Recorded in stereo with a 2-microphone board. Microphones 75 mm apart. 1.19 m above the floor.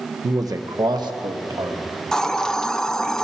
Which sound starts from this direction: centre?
A hiss, at 2.1 s.